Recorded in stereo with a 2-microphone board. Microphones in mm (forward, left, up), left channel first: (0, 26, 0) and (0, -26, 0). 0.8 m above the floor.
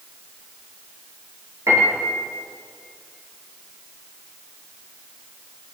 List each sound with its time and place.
1.7 s a piano: 65° right (ahead or behind), 9.5 m